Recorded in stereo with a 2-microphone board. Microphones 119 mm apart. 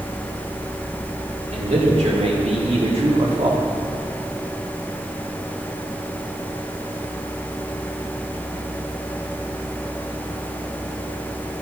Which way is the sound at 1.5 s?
65° right (ahead or behind).